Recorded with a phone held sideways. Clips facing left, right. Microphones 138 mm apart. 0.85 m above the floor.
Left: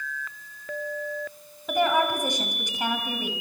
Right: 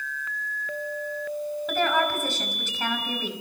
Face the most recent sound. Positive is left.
turn(degrees=15)  # may be behind; listen again after turning